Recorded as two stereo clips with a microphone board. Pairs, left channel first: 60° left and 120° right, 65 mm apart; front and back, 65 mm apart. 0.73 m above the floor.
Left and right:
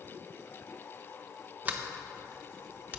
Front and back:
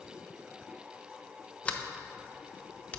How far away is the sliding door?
About 0.5 m.